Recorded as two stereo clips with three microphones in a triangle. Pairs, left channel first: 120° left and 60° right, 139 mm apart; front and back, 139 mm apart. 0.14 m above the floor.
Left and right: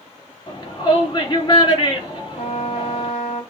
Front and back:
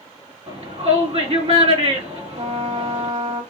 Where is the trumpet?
165° left, 4 m.